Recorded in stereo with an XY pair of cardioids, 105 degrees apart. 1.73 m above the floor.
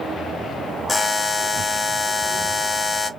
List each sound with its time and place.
0.9 s a buzzer: 30° left, 0.8 m